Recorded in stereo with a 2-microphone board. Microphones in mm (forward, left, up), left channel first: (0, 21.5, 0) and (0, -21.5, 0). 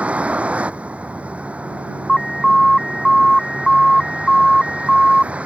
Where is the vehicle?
30° right (ahead or behind).